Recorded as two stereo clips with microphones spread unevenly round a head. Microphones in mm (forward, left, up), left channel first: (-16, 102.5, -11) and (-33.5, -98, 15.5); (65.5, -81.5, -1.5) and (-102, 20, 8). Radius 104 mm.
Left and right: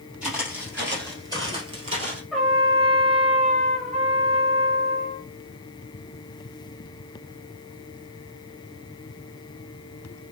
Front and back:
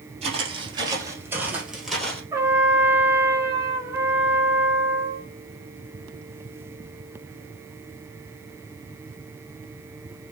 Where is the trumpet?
170° right, 1.6 m.